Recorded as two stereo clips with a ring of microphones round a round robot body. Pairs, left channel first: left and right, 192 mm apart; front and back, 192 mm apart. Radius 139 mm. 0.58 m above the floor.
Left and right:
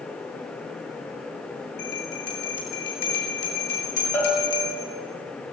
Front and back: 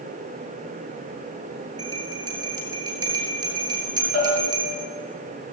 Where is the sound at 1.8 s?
110° left, 8.5 m.